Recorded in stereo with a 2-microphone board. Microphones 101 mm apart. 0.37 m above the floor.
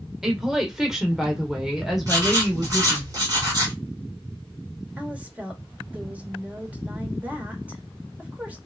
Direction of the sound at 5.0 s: 15° right (ahead or behind).